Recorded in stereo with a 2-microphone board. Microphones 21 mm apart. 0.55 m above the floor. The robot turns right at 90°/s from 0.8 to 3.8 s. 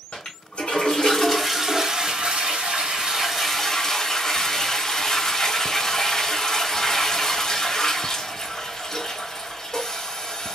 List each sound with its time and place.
0.1 s a toilet flushing: 120° left, 2 m; by 10.6 s 30° left, 2 m